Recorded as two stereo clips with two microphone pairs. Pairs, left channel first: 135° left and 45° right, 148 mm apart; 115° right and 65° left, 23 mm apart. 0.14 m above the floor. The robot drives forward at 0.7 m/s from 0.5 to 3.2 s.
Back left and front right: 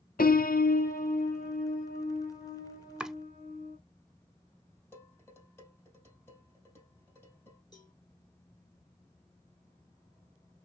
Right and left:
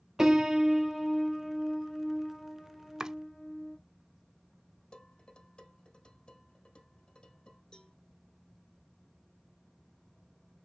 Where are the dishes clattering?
155° right, 3 m.